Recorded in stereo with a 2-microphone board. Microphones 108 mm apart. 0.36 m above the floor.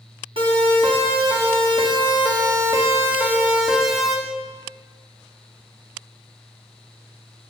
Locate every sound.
0.4 s a siren: 60° right (ahead or behind), 4 m; by 4.2 s centre (ahead or behind), 3.5 m